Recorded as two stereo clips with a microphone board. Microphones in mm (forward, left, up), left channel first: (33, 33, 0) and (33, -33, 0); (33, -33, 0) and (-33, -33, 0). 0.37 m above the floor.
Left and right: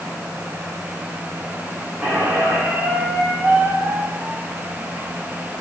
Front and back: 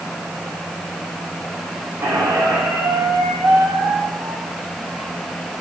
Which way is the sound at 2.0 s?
150° right.